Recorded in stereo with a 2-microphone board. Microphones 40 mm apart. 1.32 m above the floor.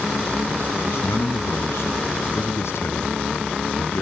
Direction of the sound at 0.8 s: 80° left.